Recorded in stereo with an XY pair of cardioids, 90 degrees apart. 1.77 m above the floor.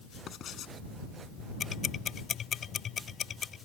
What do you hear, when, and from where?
0.3 s writing: 70° left
1.6 s ticking: 55° left